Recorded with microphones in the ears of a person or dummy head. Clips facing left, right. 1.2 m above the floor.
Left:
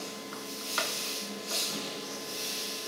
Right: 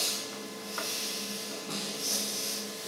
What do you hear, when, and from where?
1.7 s a snare drum: 70° right (ahead or behind), 3 m